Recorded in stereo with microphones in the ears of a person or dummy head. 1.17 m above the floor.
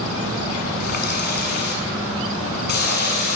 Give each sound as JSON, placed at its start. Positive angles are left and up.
{"t": 0.8, "sound": "a running tap", "side_deg": 55, "distance_m": 7.5}